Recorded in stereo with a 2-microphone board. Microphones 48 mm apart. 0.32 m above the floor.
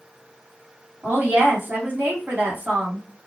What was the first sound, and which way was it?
A woman speaking, 45° right (ahead or behind).